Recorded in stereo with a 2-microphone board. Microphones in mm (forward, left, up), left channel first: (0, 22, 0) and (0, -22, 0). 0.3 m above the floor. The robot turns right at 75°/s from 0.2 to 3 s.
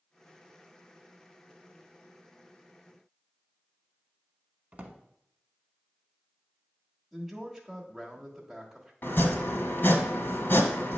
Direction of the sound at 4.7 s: 35° right (ahead or behind).